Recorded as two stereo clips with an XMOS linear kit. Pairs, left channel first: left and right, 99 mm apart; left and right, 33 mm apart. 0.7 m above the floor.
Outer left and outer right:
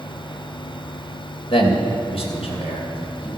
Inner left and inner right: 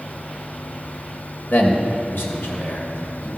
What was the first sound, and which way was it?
A man speaking, 75° left (ahead or behind).